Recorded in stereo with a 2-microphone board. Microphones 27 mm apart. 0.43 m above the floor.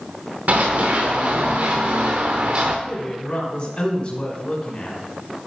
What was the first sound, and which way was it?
Running footsteps, 70° right (ahead or behind).